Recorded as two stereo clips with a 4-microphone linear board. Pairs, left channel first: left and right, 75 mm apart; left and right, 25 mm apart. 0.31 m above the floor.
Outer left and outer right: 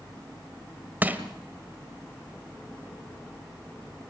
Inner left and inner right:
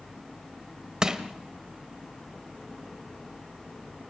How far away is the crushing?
About 1.5 m.